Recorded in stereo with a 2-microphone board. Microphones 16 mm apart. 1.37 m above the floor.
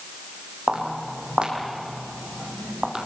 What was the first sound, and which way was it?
Footsteps, 70° right (ahead or behind).